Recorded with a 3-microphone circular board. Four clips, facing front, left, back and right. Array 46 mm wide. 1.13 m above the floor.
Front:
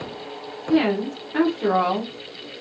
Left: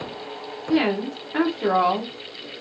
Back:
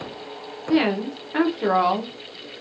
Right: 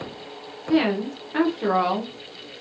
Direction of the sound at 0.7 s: 175° right.